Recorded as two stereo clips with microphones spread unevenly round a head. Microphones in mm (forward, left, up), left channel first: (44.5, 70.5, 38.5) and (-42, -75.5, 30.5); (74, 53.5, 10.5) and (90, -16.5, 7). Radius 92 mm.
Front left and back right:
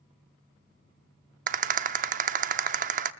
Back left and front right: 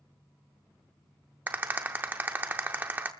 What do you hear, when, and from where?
1.5 s a rattle: 140° right, 0.6 m